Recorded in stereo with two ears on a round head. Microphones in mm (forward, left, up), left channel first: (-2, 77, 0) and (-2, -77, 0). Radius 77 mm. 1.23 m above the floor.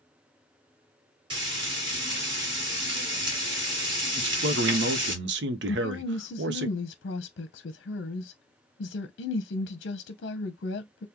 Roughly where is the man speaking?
Right.